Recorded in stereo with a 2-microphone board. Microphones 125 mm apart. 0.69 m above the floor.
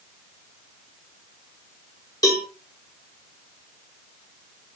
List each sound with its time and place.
2.2 s a cowbell: 30° left (ahead or behind), 2.5 m